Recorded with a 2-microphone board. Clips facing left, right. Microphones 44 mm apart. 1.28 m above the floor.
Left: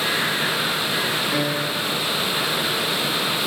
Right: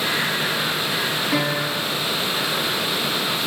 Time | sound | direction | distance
1.3 | a piano | 65° right (ahead or behind) | 1.9 m